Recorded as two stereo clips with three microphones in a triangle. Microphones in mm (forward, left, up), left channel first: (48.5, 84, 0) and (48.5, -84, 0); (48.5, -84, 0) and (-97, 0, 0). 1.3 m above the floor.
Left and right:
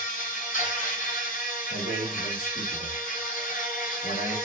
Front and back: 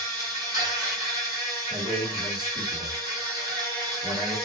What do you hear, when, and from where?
0.0 s an insect: 90° left, 1.2 m
1.7 s a man speaking: 90° left, 1.6 m